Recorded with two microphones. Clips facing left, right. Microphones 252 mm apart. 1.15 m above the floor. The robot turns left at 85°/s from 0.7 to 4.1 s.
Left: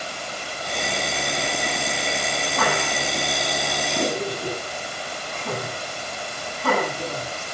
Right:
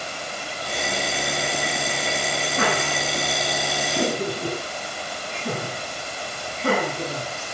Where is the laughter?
20° right (ahead or behind), 8 m; by 7.3 s 30° right (ahead or behind), 8 m.